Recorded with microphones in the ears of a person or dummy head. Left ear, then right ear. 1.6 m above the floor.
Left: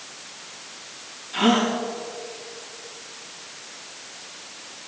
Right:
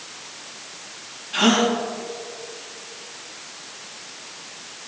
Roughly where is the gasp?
Centre.